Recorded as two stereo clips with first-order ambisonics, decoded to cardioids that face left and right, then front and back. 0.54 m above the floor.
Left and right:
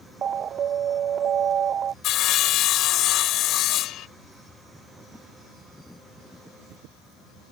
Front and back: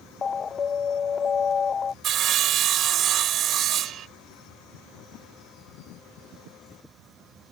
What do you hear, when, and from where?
0.2 s an alarm: 55° right
2.0 s sawing: 130° left